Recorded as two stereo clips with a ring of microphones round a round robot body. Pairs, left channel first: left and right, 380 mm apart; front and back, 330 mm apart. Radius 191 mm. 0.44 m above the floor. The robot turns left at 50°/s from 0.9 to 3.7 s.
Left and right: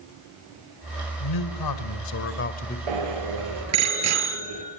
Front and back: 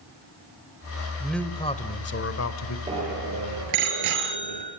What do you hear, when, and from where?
1.2 s a man speaking: 95° left, 2 m; by 2.8 s 15° left, 2 m
2.9 s a bicycle bell: 100° right, 6 m; by 4.6 s 140° right, 6 m